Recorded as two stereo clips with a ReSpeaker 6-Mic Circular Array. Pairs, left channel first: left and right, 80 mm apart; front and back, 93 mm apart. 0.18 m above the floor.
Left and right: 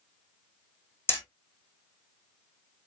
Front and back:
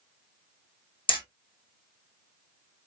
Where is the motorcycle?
I don't hear a motorcycle.